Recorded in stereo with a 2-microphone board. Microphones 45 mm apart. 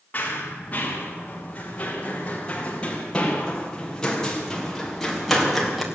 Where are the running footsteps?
35° left (ahead or behind), 8.5 m; by 5.8 s 5° right (ahead or behind), 6 m.